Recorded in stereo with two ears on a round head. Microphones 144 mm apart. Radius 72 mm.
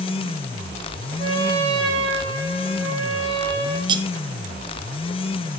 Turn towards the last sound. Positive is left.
turn(degrees=-30)  # may be behind; listen again after turning